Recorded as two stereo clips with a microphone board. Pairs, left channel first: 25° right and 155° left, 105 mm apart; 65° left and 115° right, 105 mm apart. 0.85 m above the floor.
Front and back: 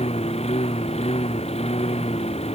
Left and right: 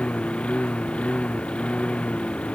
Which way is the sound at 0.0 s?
10° right.